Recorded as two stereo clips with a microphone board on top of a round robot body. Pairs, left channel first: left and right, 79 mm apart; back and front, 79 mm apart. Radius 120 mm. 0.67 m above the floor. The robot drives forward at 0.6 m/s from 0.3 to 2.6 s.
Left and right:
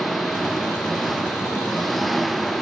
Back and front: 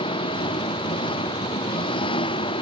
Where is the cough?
I don't hear a cough.